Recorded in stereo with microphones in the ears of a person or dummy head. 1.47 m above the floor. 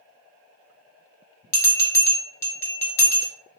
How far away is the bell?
About 0.8 m.